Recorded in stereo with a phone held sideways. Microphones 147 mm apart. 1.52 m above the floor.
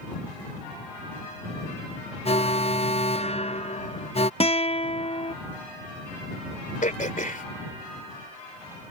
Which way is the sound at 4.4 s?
45° left (ahead or behind).